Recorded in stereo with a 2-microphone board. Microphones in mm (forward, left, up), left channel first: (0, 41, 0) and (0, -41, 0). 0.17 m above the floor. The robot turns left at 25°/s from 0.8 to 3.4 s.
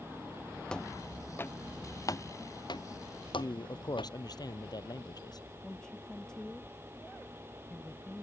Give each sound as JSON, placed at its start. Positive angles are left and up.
{"t": 0.7, "sound": "footsteps", "side_deg": 10}
{"t": 3.4, "sound": "a man speaking", "side_deg": 55}
{"t": 5.6, "sound": "a woman speaking", "side_deg": 10}